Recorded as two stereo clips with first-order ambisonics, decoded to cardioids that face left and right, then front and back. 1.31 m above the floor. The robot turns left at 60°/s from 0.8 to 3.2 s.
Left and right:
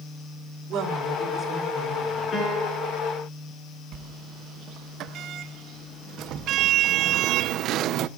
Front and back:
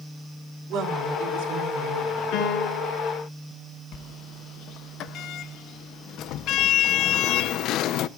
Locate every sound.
0.7 s a woman speaking: 135° right, 3.5 m; by 2.4 s 125° left, 3.5 m
2.3 s a piano: 25° left, 4.5 m; by 3.0 s 15° right, 4.5 m
3.9 s a sliding door: 45° right, 0.7 m